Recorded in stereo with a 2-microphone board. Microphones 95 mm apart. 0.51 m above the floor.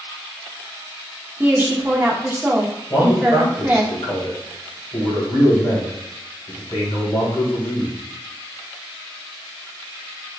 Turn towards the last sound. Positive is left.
turn(degrees=50)  # may be behind; listen again after turning